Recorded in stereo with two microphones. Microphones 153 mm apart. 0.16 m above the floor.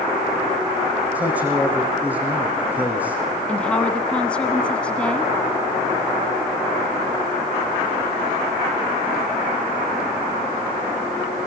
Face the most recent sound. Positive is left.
turn(degrees=5)  # may be behind; listen again after turning